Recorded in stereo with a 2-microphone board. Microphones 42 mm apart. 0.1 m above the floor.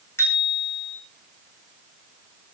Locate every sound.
0.2 s a bicycle bell: 80° left, 5 m